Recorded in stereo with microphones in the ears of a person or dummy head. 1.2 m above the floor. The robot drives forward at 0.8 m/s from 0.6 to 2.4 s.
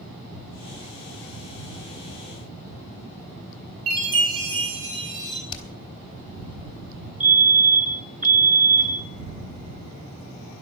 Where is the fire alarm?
10° right (ahead or behind), 4.5 m.